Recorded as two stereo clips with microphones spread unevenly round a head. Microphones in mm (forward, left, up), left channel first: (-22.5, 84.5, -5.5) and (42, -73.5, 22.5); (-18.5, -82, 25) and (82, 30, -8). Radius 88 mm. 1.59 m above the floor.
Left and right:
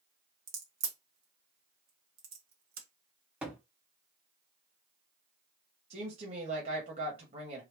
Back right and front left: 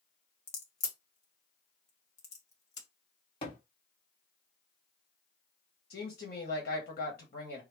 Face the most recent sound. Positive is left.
turn(degrees=-110)